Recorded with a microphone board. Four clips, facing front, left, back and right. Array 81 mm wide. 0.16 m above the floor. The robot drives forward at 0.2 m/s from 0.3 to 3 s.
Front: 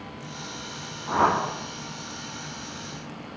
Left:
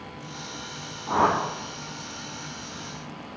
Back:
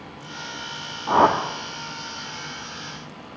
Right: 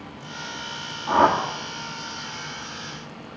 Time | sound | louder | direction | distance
1.1 | a whoosh | right 4 dB, back 5 dB | 170° right | 2 m